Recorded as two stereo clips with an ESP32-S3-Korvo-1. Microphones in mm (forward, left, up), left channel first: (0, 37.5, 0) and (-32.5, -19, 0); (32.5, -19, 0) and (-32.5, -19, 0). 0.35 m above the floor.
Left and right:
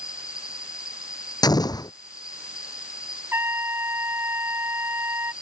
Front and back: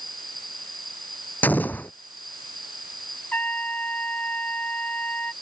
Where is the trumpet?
65° right.